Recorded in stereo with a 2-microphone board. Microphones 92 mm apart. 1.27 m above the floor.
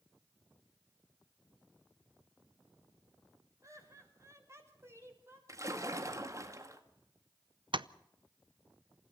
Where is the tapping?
70° right (ahead or behind), 0.6 m.